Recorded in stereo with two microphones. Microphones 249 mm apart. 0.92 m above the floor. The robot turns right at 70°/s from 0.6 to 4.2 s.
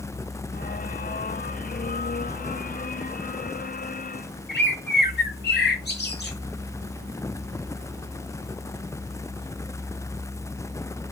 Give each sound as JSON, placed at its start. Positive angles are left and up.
{"t": 4.5, "sound": "a bird", "side_deg": 40, "distance_m": 1.1}